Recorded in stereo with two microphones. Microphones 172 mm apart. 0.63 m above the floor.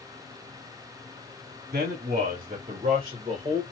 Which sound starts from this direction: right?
A man speaking, at 1.7 s.